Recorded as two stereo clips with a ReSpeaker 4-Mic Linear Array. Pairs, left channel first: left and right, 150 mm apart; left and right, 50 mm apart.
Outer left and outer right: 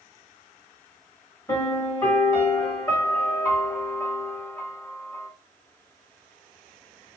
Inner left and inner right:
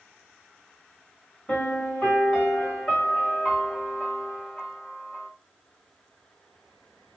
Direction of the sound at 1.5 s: 25° left (ahead or behind).